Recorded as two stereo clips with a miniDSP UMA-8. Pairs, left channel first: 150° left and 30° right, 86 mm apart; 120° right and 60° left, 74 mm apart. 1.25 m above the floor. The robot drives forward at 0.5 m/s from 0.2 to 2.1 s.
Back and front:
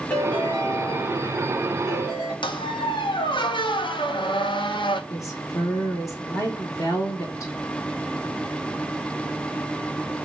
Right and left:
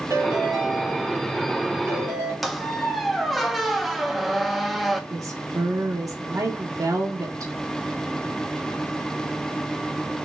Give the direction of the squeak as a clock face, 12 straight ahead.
7 o'clock.